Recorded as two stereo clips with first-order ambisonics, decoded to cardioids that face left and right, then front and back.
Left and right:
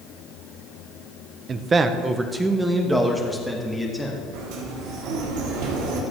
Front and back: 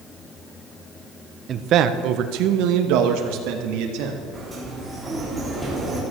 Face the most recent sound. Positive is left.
turn(degrees=-95)